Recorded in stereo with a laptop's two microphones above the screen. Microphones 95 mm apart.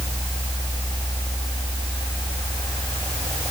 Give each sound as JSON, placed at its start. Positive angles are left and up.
{"t": 0.0, "sound": "a fan", "side_deg": 75, "distance_m": 5.0}